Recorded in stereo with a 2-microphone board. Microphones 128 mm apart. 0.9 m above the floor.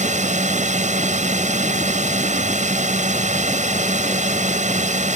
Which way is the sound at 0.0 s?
75° right (ahead or behind).